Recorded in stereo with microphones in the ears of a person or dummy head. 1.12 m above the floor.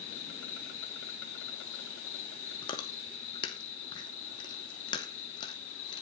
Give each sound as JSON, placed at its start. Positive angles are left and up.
{"t": 0.0, "sound": "an insect", "side_deg": 75, "distance_m": 3.5}
{"t": 2.6, "sound": "chewing", "side_deg": 25, "distance_m": 2.5}